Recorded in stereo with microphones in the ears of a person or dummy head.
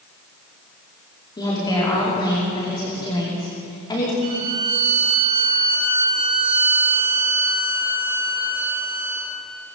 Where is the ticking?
I don't hear ticking.